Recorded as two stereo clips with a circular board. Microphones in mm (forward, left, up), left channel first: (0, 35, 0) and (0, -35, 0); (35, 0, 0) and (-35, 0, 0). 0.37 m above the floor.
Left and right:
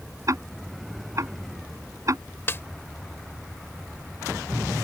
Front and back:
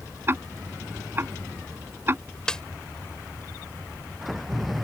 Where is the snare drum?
70° left.